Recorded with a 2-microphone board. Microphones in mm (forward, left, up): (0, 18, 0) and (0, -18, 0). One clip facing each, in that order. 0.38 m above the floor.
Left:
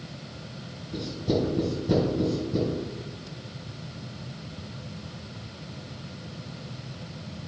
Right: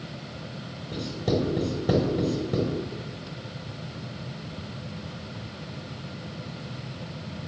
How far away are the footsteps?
No footsteps in this recording.